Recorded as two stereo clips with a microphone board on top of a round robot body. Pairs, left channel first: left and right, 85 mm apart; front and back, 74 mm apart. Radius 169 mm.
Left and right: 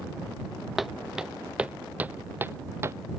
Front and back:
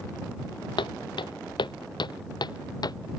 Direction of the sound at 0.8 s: Straight ahead.